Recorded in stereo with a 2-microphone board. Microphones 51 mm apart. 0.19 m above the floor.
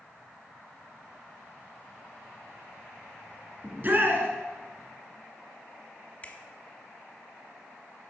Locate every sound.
3.6 s a shout: 40° right (ahead or behind), 1.9 m
6.2 s a finger snap: 30° left (ahead or behind), 1.0 m